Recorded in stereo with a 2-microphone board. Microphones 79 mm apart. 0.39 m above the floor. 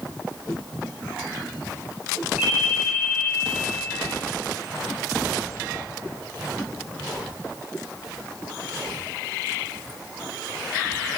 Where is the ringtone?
15° right (ahead or behind), 2 m.